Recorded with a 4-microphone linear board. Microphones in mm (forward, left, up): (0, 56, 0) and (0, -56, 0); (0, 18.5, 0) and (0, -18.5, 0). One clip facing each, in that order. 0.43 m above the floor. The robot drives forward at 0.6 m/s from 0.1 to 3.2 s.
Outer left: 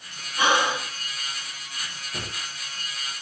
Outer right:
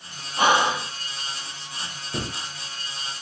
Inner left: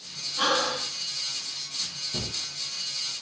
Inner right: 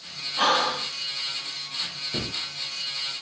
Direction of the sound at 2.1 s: 60° right (ahead or behind).